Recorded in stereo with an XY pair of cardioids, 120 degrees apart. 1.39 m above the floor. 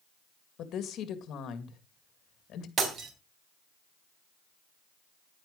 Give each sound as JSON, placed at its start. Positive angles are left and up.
{"t": 0.6, "sound": "a woman speaking", "azimuth_deg": 60, "distance_m": 2.0}
{"t": 2.8, "sound": "breaking glass", "azimuth_deg": -50, "distance_m": 4.0}